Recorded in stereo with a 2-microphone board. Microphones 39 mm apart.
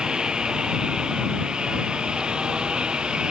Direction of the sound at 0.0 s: 20° right (ahead or behind).